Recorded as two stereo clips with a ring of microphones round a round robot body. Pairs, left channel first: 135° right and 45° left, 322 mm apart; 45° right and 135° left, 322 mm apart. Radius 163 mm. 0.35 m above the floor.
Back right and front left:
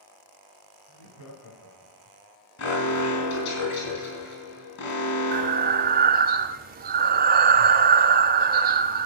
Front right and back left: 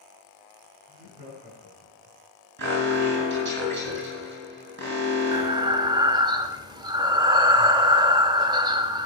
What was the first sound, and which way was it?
Laughter, 160° right.